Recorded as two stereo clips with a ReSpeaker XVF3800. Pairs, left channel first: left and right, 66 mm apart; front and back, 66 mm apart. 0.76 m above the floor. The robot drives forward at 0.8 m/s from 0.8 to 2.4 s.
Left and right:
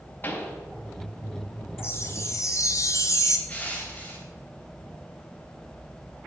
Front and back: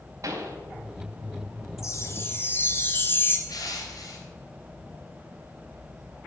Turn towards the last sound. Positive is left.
turn(degrees=20)